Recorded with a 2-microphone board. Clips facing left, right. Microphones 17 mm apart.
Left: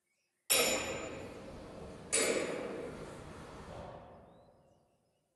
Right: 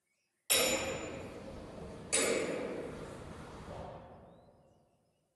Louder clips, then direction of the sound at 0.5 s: Even; 30° right (ahead or behind).